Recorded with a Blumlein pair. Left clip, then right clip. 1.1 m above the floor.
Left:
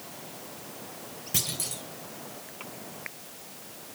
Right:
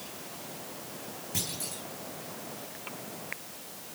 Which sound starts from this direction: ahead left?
A clunk, at 1.3 s.